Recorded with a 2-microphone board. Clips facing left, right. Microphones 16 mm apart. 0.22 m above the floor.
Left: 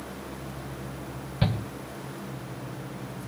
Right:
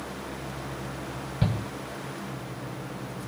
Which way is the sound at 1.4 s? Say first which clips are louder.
Left 1 dB; 15° left (ahead or behind).